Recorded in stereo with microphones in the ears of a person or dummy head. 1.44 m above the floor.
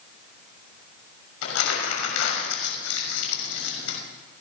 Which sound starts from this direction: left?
Crumpling, at 1.4 s.